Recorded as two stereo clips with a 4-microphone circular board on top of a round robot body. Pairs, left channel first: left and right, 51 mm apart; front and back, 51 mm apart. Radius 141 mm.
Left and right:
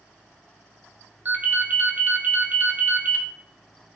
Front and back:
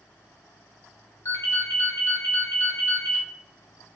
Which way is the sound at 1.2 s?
30° right.